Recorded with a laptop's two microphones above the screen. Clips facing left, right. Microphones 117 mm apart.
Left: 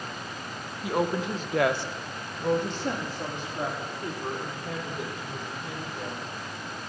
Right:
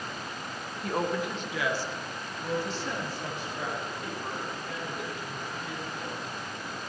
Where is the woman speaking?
5° left (ahead or behind), 1.0 m; by 6.2 s 40° left (ahead or behind), 5 m.